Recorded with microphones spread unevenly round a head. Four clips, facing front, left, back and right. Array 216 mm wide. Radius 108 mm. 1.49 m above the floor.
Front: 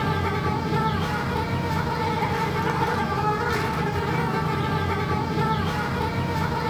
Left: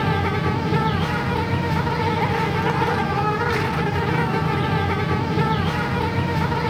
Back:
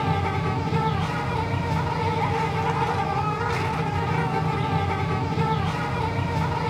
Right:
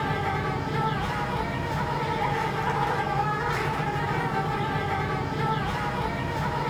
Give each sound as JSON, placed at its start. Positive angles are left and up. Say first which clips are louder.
{"t": 0.0, "sound": "an insect", "louder": "left 5 dB, even", "azimuth_deg": 75, "distance_m": 0.7}